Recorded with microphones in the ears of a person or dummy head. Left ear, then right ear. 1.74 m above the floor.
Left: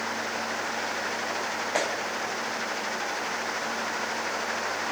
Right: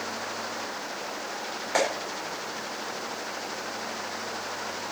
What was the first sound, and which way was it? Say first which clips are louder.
A clap: right 4 dB; 30° right (ahead or behind).